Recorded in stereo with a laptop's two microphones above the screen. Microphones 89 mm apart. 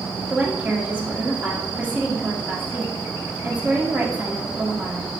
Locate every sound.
0.3 s a woman speaking: 15° right (ahead or behind), 0.8 m